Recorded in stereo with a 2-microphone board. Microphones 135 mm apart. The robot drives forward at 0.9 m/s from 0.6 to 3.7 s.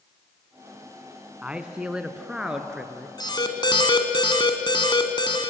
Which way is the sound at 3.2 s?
30° left (ahead or behind).